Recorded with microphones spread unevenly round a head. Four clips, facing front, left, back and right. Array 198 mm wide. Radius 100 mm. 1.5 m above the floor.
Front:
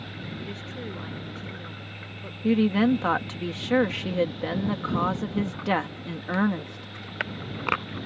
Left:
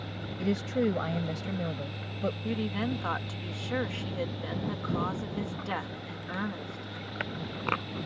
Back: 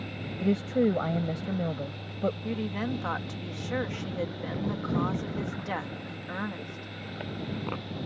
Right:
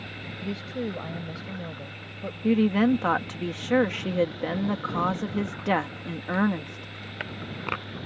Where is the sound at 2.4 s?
50° right.